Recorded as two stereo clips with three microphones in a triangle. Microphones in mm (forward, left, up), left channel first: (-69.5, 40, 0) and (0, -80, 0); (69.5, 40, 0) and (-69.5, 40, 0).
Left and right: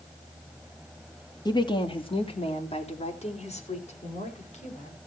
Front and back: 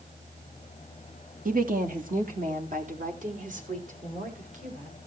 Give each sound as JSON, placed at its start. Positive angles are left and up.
{"t": 1.4, "sound": "a woman speaking", "azimuth_deg": 180, "distance_m": 2.0}